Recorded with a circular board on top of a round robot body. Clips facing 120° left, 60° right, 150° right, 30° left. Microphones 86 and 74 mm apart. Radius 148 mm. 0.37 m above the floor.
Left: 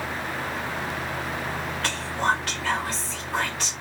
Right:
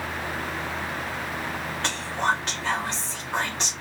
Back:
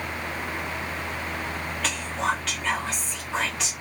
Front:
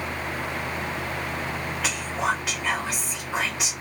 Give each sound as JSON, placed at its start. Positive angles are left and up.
{"t": 1.8, "sound": "whispering", "azimuth_deg": -35, "distance_m": 1.0}